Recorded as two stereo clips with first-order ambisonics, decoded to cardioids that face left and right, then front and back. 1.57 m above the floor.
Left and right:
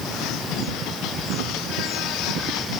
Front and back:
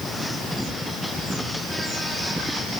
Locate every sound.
Only background noise.